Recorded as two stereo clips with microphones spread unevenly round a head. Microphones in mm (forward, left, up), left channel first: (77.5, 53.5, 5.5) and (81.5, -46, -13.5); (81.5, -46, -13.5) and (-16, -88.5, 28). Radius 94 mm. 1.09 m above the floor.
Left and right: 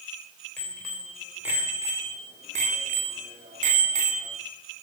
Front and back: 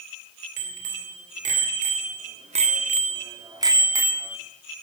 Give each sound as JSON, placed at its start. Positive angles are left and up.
{"t": 0.6, "sound": "a bicycle bell", "azimuth_deg": 175, "distance_m": 3.0}